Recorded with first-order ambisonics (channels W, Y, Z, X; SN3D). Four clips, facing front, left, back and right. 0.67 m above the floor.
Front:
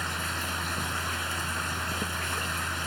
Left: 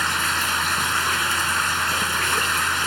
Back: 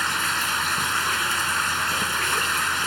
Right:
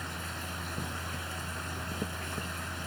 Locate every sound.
0.0 s running water: 120° left